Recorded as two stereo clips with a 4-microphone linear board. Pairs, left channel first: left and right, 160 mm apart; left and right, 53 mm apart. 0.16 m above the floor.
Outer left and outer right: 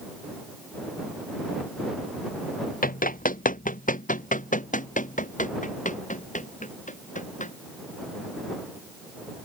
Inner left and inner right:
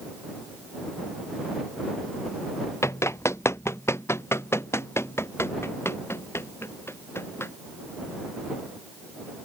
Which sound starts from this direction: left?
Running footsteps, at 2.8 s.